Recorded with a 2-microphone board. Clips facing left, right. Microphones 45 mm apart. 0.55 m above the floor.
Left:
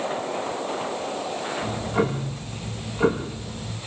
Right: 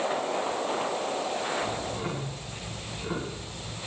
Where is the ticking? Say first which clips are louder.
Left 7 dB; 65° left (ahead or behind), 9 m.